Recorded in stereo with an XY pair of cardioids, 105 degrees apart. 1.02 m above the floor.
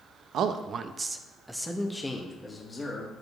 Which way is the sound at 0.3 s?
70° right.